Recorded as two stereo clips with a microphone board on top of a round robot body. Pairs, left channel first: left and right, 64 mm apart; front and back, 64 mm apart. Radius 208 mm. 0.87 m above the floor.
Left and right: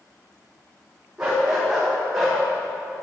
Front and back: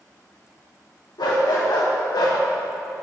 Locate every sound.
1.2 s a dog barking: 15° right, 0.6 m; by 2.4 s 5° right, 1.2 m